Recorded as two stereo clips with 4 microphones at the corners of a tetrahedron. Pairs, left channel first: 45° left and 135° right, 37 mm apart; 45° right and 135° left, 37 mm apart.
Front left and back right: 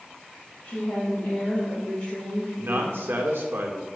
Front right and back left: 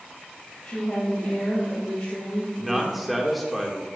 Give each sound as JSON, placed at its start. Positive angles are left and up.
{"t": 0.6, "sound": "a woman speaking", "azimuth_deg": 5, "distance_m": 3.0}
{"t": 2.6, "sound": "a man speaking", "azimuth_deg": -135, "distance_m": 1.3}